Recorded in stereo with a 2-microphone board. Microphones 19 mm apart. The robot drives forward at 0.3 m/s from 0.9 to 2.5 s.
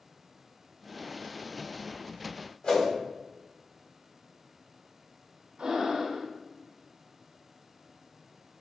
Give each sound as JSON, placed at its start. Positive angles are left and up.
{"t": 2.6, "sound": "a whoosh", "side_deg": 65, "distance_m": 1.8}
{"t": 5.6, "sound": "breathing", "side_deg": -65, "distance_m": 1.2}